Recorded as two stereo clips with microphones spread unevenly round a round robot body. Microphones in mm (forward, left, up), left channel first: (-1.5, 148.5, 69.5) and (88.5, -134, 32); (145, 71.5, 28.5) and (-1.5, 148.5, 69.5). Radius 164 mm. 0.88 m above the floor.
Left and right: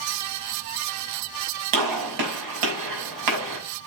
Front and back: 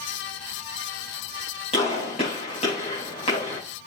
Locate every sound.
1.7 s a gunshot: 90° right, 5.5 m